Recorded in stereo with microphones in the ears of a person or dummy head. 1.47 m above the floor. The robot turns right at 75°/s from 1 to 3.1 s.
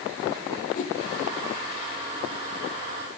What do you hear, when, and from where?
0.8 s a whoosh: 40° left (ahead or behind), 1.0 m